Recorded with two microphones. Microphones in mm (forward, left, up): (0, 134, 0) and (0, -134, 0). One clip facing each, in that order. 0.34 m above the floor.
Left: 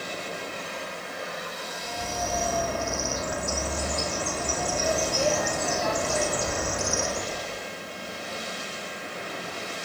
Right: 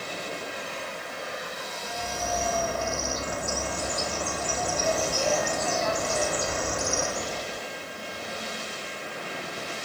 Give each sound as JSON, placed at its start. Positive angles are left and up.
{"t": 1.8, "sound": "a bird", "side_deg": 65, "distance_m": 1.8}